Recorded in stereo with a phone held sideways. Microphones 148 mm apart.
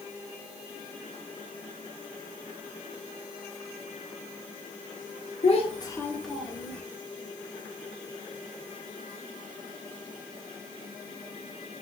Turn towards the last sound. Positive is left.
turn(degrees=-20)  # may be behind; listen again after turning